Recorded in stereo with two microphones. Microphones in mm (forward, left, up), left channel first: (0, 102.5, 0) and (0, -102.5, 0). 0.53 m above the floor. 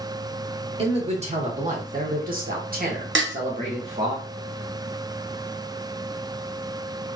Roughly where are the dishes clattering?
Right.